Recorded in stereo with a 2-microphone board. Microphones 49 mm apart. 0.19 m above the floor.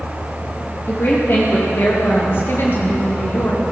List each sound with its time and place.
0.9 s a woman speaking: 55° left (ahead or behind), 5 m; by 3.6 s 50° left (ahead or behind), 2 m